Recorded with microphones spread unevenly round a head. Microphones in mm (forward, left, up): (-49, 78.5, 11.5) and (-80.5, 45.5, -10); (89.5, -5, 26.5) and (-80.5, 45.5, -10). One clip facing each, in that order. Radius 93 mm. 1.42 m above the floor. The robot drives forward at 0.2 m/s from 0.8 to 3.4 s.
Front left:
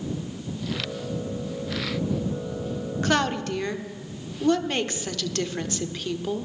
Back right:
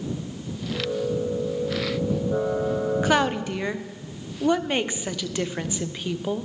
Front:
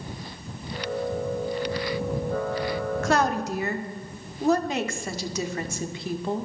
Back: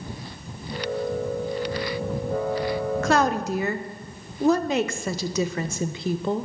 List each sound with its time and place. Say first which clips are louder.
3.0 s a woman speaking: front left 1 dB, back 2 dB; 150° left, 0.5 m